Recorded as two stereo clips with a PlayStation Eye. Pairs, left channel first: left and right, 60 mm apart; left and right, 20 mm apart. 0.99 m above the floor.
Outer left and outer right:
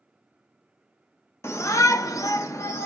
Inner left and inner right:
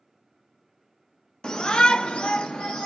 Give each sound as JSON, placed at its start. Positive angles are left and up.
{"t": 1.4, "sound": "a shout", "side_deg": 50, "distance_m": 0.6}